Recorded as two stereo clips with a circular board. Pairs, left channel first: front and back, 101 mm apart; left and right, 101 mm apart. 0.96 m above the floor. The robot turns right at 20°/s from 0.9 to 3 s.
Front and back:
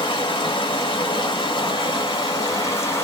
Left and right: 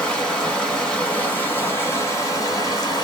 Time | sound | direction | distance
0.0 | running water | 15° left | 1.3 m